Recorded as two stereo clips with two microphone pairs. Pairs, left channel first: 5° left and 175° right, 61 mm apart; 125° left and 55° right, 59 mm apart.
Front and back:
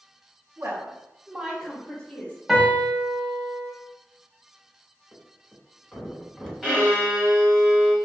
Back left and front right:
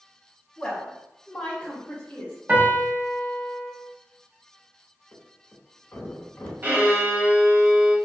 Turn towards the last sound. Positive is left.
turn(degrees=-75)